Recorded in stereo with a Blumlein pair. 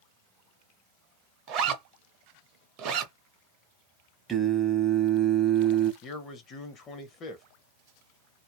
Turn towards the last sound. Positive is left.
turn(degrees=30)